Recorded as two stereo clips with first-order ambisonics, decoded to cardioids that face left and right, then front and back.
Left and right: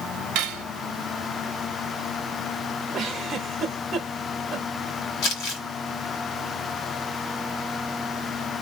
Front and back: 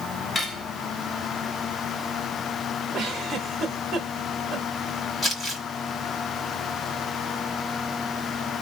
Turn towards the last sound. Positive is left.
turn(degrees=85)